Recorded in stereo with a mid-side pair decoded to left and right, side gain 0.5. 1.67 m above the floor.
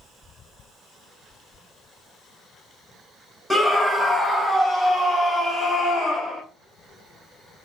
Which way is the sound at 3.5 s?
5° right.